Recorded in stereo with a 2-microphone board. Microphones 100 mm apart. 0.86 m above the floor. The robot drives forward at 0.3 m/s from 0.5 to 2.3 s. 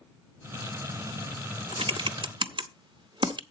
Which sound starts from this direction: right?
Typing on a keyboard, at 1.7 s.